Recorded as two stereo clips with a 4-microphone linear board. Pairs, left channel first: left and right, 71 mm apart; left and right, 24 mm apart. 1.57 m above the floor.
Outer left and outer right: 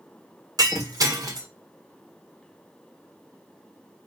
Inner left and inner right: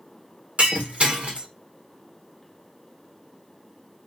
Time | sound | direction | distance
0.6 | breaking glass | 60° right (ahead or behind) | 1.3 m